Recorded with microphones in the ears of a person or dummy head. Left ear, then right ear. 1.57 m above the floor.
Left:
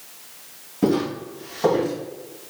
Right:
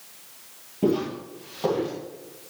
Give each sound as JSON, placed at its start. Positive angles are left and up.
{"t": 0.8, "sound": "footsteps", "side_deg": 5, "distance_m": 1.7}